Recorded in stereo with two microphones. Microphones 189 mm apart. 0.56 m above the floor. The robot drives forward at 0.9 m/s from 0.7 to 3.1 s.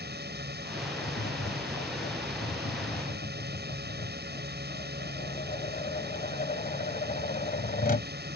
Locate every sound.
0.0 s a drone: 60° right (ahead or behind)
1.0 s tapping: 65° left (ahead or behind); by 8.1 s 50° left (ahead or behind)